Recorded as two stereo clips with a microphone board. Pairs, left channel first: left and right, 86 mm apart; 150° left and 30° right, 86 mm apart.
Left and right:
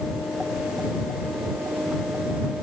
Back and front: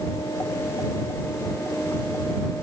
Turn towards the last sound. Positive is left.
No sound to turn to.